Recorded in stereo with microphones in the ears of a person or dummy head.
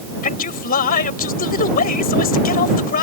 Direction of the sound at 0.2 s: 50° left (ahead or behind).